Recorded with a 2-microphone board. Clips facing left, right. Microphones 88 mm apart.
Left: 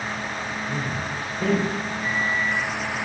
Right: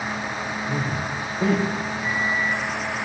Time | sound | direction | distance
0.7 | a man speaking | 35° right (ahead or behind) | 6 m
2.0 | a microwave | 10° right (ahead or behind) | 2.5 m